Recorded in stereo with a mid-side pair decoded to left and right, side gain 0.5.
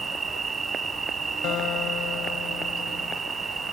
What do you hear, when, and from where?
0.0 s an insect: 30° right
1.4 s a guitar: 70° left